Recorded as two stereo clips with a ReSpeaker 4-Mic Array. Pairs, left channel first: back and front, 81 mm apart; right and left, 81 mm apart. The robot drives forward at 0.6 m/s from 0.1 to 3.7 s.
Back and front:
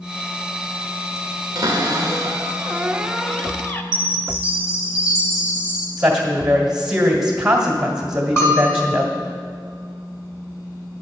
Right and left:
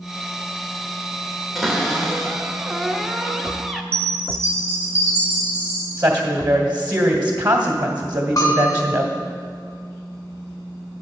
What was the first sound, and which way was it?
A cupboard door, 5° left.